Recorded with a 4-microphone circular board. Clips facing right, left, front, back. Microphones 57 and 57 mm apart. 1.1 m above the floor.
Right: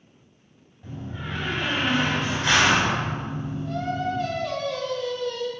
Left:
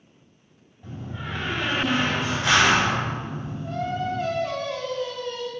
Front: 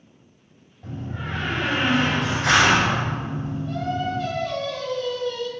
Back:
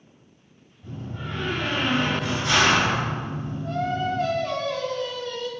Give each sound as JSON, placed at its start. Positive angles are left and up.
{"t": 0.8, "sound": "a door slam", "azimuth_deg": 10, "distance_m": 4.0}
{"t": 3.6, "sound": "singing", "azimuth_deg": 150, "distance_m": 4.0}